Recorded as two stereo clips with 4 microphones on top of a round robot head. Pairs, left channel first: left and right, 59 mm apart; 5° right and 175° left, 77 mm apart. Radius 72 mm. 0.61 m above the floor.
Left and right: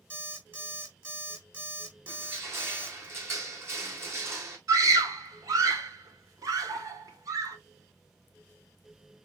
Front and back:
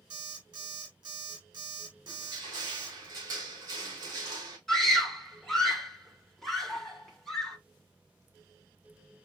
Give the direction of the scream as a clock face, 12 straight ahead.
3 o'clock.